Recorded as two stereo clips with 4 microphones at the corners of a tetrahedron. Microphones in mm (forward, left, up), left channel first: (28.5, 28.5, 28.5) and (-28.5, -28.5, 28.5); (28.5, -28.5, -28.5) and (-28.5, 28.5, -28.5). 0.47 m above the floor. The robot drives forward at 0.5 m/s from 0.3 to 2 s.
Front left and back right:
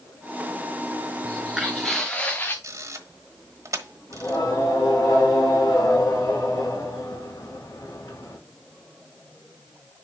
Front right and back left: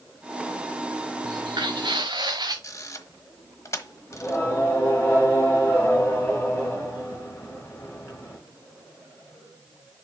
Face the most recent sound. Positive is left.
turn(degrees=15)